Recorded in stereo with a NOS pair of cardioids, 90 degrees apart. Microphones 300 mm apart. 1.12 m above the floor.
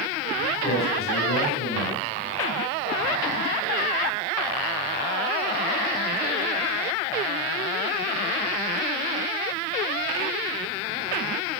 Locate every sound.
0.6 s a man speaking: 45° left, 9 m